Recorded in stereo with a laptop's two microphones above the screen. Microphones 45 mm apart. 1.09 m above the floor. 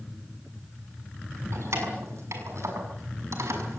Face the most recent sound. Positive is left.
turn(degrees=-80)